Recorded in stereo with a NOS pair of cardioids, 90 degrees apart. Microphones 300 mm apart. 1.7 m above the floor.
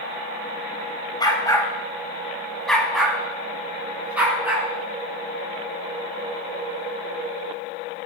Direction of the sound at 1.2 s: 15° left.